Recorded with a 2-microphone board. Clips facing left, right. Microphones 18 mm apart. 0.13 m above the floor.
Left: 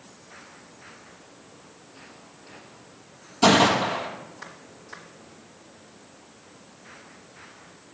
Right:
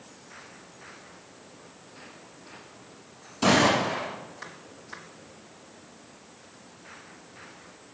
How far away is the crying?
I don't hear crying.